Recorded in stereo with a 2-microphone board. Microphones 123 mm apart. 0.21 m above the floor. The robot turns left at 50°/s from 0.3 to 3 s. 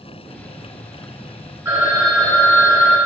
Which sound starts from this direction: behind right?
A phone ringing, at 1.6 s.